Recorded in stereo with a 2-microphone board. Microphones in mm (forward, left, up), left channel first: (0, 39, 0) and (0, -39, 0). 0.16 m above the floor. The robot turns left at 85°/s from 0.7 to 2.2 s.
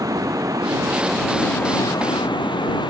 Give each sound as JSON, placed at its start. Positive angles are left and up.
{"t": 0.0, "sound": "running water", "azimuth_deg": -130}